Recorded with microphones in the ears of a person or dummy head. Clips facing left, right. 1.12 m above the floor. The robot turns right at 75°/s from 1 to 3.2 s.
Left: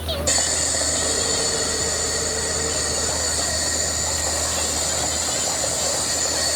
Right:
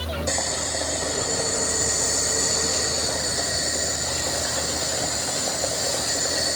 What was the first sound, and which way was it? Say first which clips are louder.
Boiling: left 1 dB; 175° left.